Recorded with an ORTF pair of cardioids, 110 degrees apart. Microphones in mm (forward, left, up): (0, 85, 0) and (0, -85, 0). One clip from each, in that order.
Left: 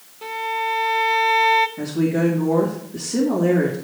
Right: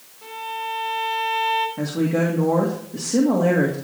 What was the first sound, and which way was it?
A violin, 45° left.